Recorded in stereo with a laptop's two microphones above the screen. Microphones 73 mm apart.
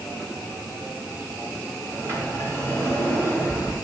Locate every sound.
1.9 s a sliding door: 30° right (ahead or behind), 4 m